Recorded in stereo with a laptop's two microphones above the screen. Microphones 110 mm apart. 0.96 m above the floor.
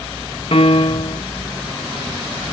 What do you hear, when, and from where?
0.5 s a piano: 55° left (ahead or behind)